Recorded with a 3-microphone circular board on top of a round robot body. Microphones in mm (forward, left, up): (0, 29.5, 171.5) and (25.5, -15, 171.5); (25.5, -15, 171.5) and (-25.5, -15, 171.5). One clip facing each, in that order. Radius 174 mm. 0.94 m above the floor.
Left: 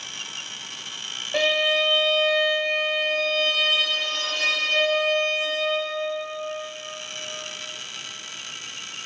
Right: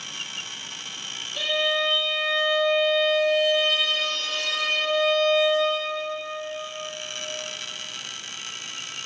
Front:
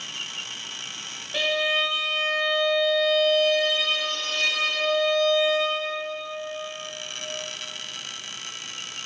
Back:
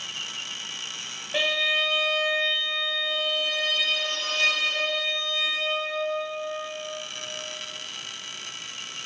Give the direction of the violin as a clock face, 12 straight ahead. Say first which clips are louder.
Left 3 dB, front 1 dB; 8 o'clock.